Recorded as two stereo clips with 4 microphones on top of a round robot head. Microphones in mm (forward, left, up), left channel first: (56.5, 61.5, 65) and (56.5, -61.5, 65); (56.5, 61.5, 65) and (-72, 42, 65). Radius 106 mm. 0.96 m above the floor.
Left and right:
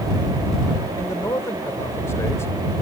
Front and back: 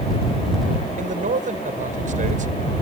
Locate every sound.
1.0 s a man speaking: 165° left